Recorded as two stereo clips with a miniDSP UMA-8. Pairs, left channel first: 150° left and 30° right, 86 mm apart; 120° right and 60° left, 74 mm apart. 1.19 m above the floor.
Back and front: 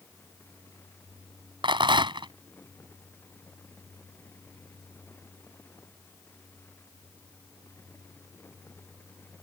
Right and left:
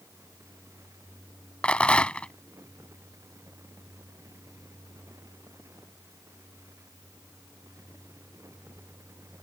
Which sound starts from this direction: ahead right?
A rattle, at 1.6 s.